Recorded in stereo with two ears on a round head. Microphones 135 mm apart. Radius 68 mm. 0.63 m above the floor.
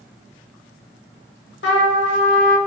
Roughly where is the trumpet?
Left.